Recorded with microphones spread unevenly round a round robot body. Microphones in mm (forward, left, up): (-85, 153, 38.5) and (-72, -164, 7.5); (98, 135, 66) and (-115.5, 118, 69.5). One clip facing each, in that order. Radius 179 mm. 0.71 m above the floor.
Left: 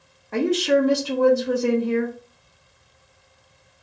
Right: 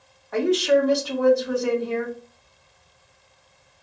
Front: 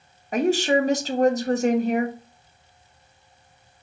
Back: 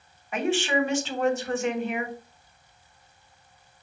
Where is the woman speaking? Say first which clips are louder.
Even, front 5 dB; 40° left, 1.1 m.